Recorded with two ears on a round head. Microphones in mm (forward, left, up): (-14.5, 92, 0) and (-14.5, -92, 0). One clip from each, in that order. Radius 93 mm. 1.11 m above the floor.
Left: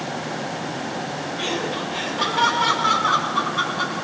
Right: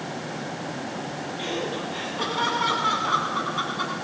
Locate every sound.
1.4 s laughter: 30° left (ahead or behind), 9 m; by 3.9 s 10° left (ahead or behind), 9.5 m